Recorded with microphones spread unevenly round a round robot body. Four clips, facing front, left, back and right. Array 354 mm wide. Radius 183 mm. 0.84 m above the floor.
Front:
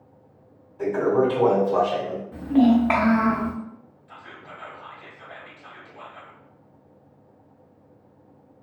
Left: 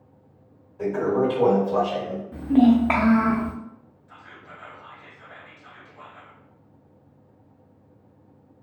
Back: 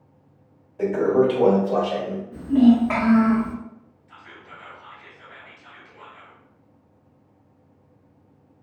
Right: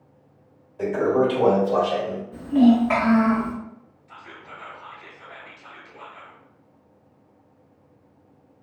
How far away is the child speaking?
About 0.6 m.